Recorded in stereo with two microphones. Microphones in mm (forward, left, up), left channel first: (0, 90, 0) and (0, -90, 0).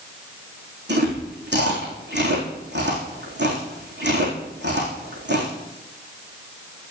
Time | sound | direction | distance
0.9 | chewing | 75° right (ahead or behind) | 4 m